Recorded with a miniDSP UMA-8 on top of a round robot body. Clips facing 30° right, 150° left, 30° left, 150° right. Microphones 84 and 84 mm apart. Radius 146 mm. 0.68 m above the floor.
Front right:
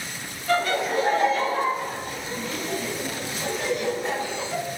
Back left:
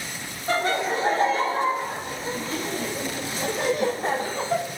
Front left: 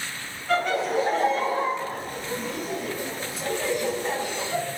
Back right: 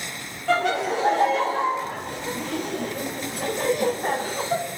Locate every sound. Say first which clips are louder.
0.5 s laughter: front right 1 dB, back right 2 dB; 150° right, 3 m; by 4.6 s 175° left, 1.3 m